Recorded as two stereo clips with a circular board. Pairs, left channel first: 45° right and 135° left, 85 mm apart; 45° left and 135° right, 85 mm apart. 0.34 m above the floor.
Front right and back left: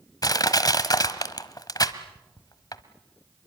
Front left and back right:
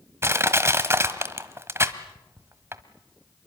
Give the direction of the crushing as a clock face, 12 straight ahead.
3 o'clock.